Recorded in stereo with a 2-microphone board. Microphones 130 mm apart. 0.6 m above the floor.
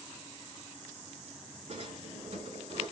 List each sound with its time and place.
1.7 s a drawer: 55° right (ahead or behind), 3 m